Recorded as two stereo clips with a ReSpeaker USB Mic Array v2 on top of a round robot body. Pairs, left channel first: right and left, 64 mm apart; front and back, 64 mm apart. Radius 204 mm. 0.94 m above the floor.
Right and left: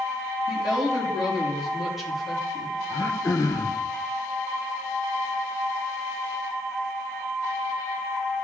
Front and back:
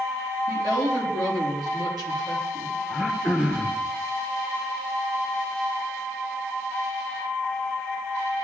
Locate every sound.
0.5 s a woman speaking: 175° left, 3 m
2.9 s throat clearing: 105° right, 1.2 m